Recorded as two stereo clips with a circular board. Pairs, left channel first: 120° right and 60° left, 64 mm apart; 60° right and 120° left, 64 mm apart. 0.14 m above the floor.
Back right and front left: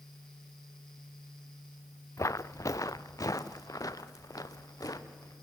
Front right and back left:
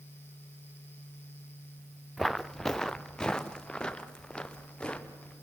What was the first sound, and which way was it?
Footsteps, 150° right.